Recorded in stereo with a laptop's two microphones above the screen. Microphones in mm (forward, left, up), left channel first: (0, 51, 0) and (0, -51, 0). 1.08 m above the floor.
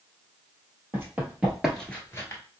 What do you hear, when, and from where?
0.9 s running footsteps: 20° right (ahead or behind), 1.6 m; by 2.4 s 30° left (ahead or behind), 1.2 m